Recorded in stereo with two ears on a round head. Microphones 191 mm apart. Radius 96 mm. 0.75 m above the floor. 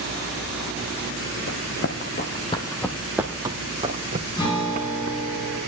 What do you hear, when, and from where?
1.5 s running footsteps: 55° left (ahead or behind), 2.0 m; by 5.2 s 45° right (ahead or behind), 3 m
4.3 s a guitar: 20° left (ahead or behind), 9.5 m